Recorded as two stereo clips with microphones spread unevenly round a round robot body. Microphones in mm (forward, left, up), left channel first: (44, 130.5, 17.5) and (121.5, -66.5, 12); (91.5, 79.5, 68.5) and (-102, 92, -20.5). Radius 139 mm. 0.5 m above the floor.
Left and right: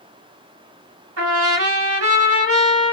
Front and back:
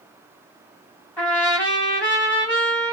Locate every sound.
1.2 s a trumpet: 90° right, 1.8 m